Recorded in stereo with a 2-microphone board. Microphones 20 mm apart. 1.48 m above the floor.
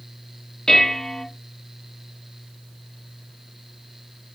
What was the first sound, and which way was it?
Dishes clattering, 45° left (ahead or behind).